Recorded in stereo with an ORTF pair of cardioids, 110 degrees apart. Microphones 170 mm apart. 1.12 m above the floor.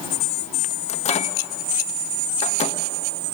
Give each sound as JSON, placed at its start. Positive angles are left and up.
{"t": 0.9, "sound": "a microwave", "azimuth_deg": 40, "distance_m": 1.1}